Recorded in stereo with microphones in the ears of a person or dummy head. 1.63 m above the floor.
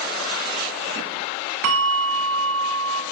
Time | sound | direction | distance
1.6 | a bell | 75° right (ahead or behind) | 0.6 m